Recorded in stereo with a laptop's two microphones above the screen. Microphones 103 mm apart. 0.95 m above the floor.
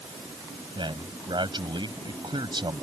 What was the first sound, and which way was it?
A man speaking, 50° right (ahead or behind).